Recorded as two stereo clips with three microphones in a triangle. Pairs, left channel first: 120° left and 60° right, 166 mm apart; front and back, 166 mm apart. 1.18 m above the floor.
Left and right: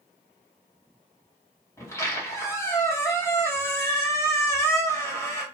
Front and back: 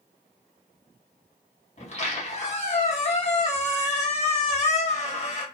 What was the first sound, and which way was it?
A squeak, 45° left.